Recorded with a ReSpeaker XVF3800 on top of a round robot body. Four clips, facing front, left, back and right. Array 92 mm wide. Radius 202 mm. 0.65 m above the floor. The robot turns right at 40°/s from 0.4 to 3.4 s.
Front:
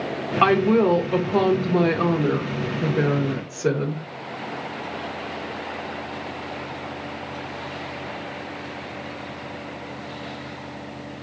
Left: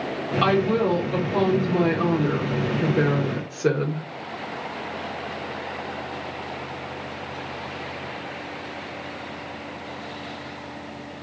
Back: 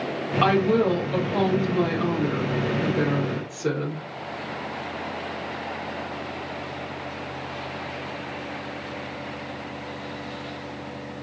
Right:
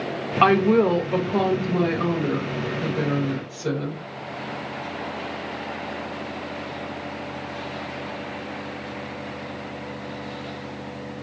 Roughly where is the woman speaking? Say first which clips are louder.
Right 4 dB, front 3 dB; ahead right.